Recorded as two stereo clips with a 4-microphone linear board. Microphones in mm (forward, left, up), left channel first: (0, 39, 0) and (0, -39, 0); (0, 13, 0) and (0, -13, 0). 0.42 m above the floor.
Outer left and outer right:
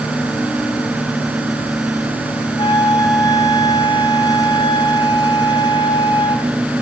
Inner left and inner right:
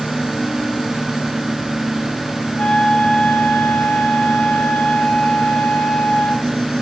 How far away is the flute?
About 4 m.